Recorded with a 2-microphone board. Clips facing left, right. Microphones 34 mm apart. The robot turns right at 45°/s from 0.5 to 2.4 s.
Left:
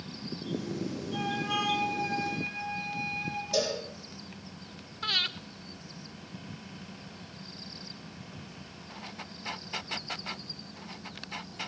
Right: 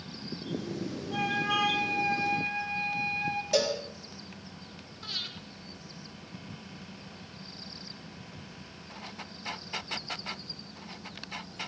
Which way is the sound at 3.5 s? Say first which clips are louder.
Right 2 dB; 80° right.